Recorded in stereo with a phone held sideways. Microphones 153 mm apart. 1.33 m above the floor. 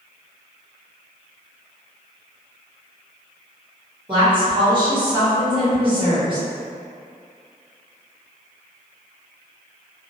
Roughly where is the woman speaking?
Right.